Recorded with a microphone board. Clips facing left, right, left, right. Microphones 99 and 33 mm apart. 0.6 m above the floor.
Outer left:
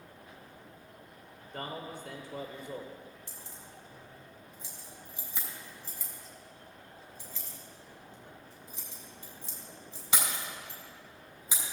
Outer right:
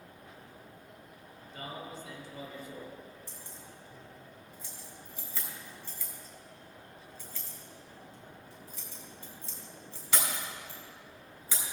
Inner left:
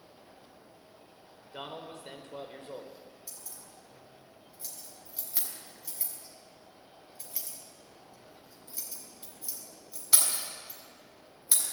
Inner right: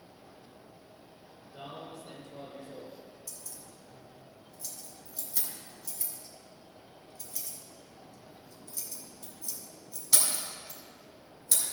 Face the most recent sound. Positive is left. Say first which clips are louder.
# even, inner right 1 dB
turn(degrees=15)  # may be behind; listen again after turning